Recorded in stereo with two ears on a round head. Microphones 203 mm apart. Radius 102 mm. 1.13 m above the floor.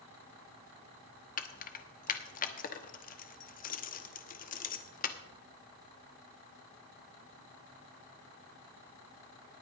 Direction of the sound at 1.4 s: 40° left (ahead or behind).